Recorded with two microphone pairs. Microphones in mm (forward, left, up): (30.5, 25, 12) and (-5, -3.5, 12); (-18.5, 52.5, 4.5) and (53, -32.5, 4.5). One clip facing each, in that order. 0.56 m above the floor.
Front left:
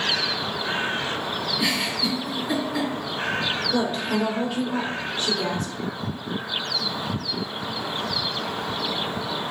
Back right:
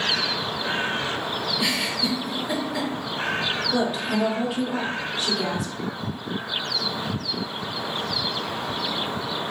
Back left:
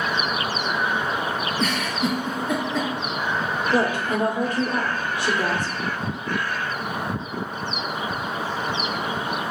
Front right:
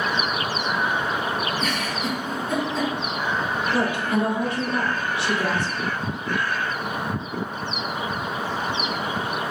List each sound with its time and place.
1.6 s a giggle: 140° left, 1.9 m
3.7 s a woman speaking: 140° left, 1.3 m